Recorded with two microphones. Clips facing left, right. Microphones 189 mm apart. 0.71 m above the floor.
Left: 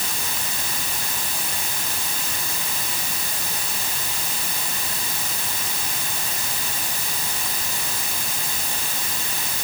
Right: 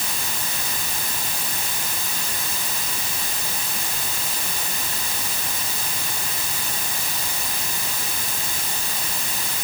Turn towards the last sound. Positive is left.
No sound to turn to.